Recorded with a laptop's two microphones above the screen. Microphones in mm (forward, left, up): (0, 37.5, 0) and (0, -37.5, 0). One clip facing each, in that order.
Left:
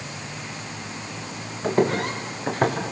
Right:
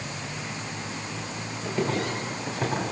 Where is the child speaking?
No child speaking in this recording.